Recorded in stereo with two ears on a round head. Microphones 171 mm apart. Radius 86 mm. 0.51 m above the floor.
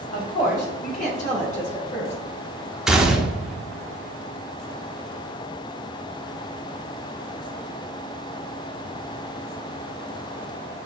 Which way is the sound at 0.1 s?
45° left (ahead or behind).